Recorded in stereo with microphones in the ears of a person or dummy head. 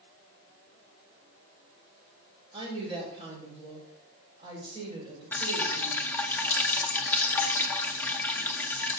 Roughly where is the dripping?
Centre.